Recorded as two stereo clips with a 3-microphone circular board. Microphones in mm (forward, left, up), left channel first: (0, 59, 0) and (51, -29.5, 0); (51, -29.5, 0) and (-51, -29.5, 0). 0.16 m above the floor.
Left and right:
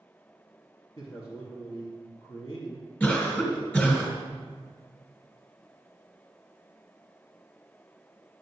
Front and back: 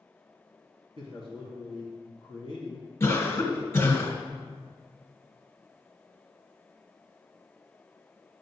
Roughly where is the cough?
Ahead left.